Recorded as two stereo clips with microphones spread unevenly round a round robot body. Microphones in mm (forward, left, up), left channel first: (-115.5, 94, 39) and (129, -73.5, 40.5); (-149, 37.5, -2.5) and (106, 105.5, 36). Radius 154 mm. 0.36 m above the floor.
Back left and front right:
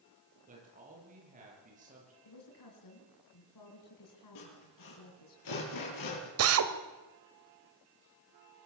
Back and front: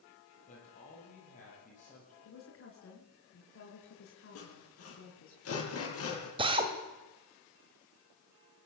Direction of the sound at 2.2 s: 165° left.